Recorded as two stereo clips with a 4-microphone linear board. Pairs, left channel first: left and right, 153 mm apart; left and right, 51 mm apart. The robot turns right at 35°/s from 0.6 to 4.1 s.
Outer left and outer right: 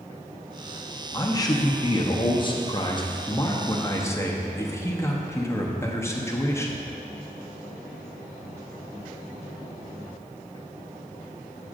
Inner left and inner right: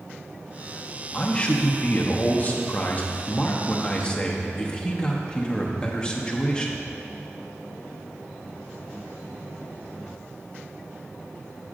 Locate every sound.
1.1 s a man speaking: 40° left, 0.6 m; by 6.9 s 145° left, 0.6 m